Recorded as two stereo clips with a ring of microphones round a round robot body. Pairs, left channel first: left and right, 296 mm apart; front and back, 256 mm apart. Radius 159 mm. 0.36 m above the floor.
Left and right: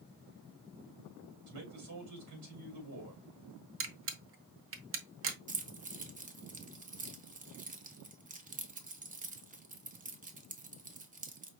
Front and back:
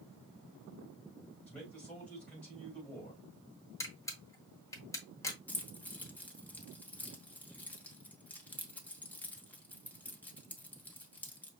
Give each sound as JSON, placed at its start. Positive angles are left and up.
{"t": 1.5, "sound": "a man speaking", "azimuth_deg": -85, "distance_m": 2.5}
{"t": 3.8, "sound": "a camera shutter", "azimuth_deg": -75, "distance_m": 0.9}
{"t": 5.5, "sound": "keys jangling", "azimuth_deg": -75, "distance_m": 0.9}